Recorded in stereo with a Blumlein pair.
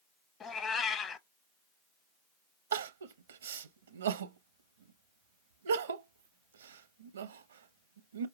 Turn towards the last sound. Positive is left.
turn(degrees=-65)